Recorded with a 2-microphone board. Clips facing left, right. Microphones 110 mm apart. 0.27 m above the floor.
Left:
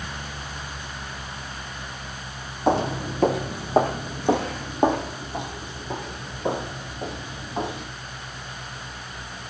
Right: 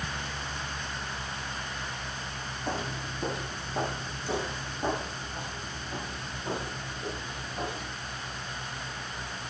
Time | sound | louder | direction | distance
2.7 | footsteps | left 13 dB | 65° left (ahead or behind) | 0.7 m